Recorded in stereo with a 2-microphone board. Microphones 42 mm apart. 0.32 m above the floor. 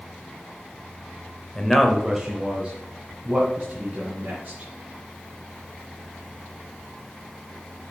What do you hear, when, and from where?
1.6 s a man speaking: 15° left (ahead or behind), 0.8 m; by 4.7 s 35° right (ahead or behind), 3.5 m